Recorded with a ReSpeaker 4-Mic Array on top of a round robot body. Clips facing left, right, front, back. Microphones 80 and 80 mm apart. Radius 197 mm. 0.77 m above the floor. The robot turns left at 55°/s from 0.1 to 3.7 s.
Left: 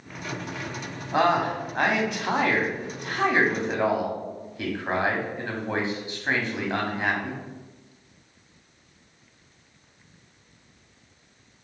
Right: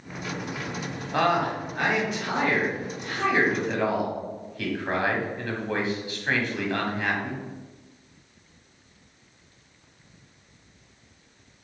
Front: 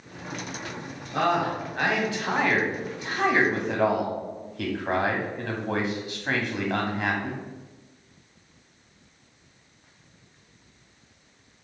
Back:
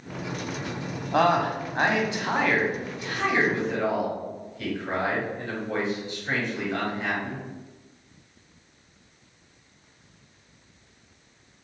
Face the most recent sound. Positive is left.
turn(degrees=25)